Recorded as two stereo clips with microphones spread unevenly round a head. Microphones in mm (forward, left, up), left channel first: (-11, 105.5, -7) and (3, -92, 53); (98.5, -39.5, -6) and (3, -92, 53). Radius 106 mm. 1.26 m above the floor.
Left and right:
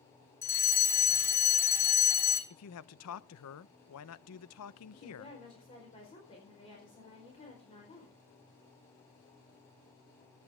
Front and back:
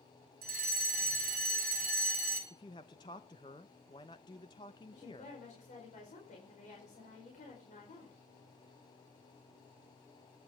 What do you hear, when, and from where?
0.4 s a fire alarm: 165° left, 3 m
2.5 s a man speaking: 100° left, 0.7 m
4.9 s a woman speaking: 30° left, 4.5 m